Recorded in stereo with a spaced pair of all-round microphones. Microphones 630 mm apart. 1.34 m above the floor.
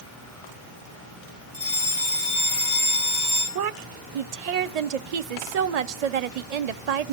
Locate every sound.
1.5 s a fire alarm: 30° left (ahead or behind), 6 m
3.5 s a woman speaking: 75° right (ahead or behind), 0.7 m